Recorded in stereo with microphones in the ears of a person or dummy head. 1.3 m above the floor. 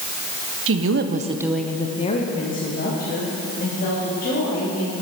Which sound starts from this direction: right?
A woman speaking, at 0.7 s.